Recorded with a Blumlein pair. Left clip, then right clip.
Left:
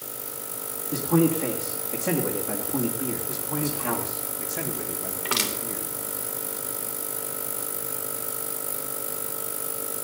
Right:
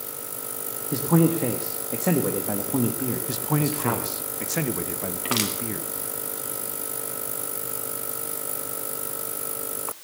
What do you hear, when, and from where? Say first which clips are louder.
0.9 s a man speaking: right 1 dB; 20° right, 1.9 m
3.3 s a man speaking: right 4 dB; 40° right, 1.6 m
5.2 s crushing: even; 10° right, 3 m